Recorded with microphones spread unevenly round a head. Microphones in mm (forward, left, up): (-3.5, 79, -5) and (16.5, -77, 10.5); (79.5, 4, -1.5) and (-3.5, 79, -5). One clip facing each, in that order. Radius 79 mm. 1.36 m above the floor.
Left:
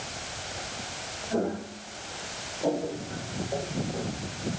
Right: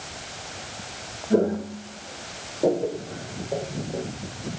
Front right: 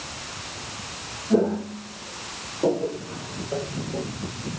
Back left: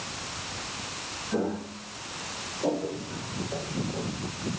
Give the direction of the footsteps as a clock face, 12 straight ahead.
3 o'clock.